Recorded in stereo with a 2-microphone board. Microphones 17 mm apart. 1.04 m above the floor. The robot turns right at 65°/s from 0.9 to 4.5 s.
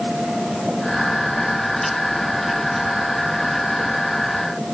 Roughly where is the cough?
I don't hear a cough.